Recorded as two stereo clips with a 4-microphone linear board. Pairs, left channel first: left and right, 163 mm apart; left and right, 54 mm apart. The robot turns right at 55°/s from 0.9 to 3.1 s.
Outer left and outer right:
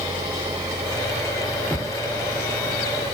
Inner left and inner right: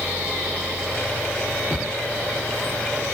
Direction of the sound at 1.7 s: 10° left (ahead or behind).